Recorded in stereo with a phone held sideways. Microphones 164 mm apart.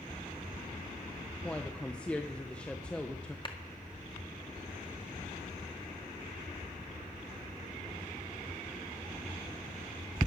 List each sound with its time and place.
1.4 s a woman speaking: 5° left (ahead or behind), 0.9 m
3.5 s a clap: 35° left (ahead or behind), 1.7 m